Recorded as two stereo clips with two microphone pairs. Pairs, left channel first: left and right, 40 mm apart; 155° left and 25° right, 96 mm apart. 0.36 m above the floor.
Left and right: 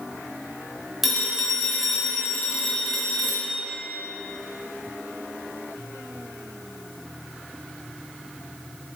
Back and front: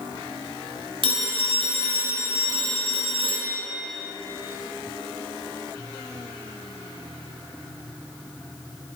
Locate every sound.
1.0 s a phone ringing: 5° right, 1.2 m